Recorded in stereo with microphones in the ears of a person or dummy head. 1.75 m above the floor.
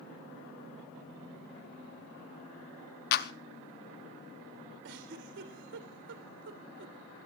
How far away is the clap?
About 1.0 m.